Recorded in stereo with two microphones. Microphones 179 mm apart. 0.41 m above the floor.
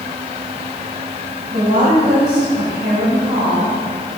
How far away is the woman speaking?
About 2 m.